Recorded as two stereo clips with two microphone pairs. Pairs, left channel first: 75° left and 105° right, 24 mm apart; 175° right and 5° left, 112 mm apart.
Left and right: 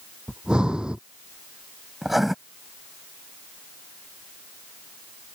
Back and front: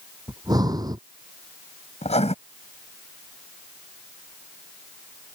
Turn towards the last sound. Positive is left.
turn(degrees=175)